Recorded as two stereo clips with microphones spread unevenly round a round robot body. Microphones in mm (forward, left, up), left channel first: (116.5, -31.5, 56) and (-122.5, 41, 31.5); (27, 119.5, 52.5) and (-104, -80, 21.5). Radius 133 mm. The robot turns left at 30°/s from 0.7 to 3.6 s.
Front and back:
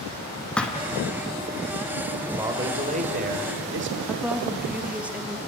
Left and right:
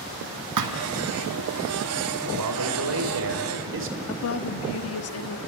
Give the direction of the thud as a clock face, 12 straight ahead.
3 o'clock.